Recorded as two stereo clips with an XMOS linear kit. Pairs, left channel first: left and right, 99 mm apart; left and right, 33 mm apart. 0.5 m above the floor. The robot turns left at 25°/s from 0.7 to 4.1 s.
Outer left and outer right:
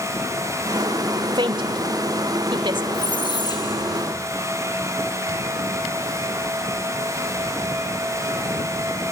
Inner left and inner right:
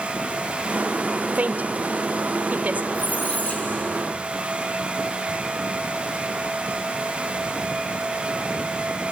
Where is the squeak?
60° left (ahead or behind), 3.5 m; by 4.3 s 30° left (ahead or behind), 3.5 m.